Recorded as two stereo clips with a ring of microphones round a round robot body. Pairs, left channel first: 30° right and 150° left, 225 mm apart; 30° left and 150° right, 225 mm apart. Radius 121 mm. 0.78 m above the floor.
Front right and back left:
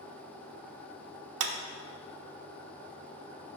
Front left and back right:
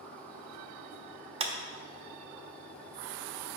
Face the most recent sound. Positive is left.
turn(degrees=145)